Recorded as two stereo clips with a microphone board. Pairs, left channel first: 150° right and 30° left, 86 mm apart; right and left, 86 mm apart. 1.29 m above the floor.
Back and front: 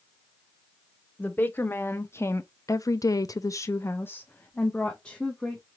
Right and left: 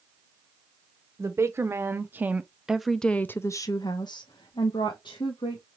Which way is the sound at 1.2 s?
145° left.